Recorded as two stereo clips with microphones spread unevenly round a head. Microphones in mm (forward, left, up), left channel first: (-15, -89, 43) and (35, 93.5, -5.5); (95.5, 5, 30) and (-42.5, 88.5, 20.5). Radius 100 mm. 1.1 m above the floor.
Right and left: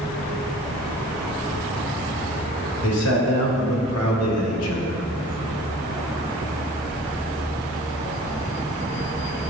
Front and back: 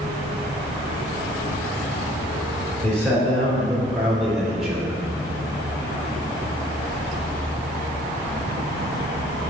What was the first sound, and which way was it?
A man speaking, 115° right.